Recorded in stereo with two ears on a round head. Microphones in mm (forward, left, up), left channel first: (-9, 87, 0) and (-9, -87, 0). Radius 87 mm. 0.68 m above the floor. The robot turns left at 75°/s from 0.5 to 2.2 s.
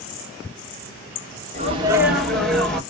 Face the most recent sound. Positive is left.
turn(degrees=180)